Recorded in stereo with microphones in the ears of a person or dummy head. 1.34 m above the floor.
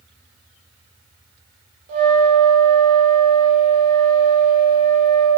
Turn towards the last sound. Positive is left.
turn(degrees=-65)  # may be behind; listen again after turning